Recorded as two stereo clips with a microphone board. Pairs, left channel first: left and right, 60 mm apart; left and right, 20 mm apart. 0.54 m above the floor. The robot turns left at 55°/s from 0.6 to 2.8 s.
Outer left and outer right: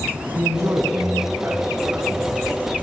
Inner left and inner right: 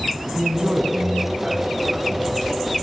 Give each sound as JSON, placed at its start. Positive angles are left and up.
{"t": 0.3, "sound": "a man speaking", "azimuth_deg": -65, "distance_m": 4.5}